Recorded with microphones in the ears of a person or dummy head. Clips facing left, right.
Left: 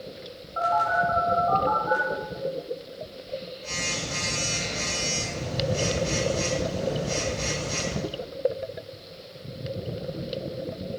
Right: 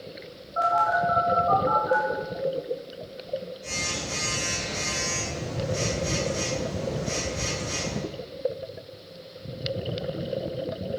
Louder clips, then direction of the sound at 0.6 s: Even; 15° right (ahead or behind).